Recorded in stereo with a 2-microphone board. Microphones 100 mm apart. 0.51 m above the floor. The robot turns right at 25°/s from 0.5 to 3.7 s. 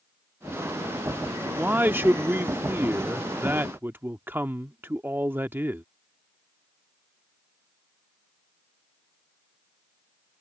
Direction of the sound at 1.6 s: 20° right (ahead or behind).